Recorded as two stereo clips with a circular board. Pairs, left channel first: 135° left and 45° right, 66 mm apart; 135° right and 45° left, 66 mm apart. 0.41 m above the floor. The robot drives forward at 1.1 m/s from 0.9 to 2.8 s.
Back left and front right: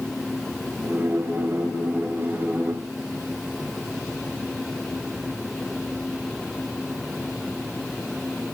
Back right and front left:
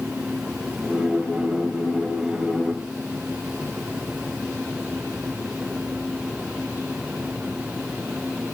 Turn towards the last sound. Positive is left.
No sound to turn to.